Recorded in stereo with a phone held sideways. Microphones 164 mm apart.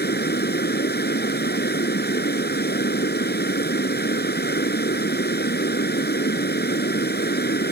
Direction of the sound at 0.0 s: 80° left.